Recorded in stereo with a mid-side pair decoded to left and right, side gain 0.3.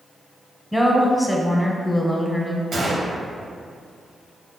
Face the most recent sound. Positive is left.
turn(degrees=-65)